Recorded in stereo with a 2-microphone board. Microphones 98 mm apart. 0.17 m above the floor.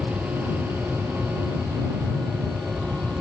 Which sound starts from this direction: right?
An aircraft, at 0.0 s.